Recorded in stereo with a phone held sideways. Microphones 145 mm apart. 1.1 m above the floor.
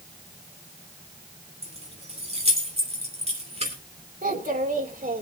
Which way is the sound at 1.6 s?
50° right (ahead or behind).